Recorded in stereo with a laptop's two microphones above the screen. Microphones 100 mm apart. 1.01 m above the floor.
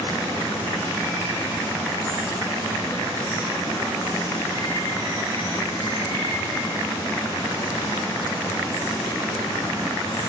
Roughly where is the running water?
Left.